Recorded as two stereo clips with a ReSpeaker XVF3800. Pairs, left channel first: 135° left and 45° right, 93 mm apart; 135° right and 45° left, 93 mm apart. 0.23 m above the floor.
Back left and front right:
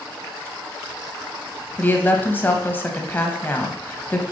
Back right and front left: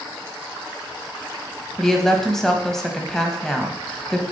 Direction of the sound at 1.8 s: 150° left.